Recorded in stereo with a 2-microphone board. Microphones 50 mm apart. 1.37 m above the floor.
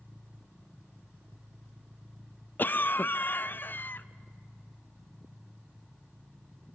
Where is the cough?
45° left (ahead or behind), 0.5 m.